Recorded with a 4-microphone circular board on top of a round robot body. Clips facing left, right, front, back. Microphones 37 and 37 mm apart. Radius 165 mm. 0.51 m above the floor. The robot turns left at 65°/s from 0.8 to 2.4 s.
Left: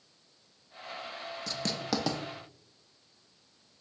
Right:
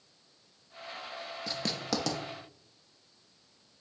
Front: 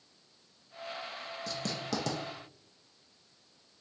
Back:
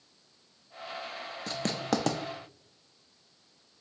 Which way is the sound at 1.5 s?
155° right.